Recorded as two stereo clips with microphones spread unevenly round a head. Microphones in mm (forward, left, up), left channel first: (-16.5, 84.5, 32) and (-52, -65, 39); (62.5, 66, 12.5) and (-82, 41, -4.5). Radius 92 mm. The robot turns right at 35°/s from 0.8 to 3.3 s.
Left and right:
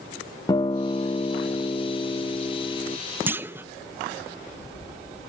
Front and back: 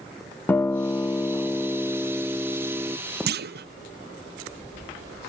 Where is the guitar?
40° left, 0.7 m; by 3.0 s 115° left, 0.7 m.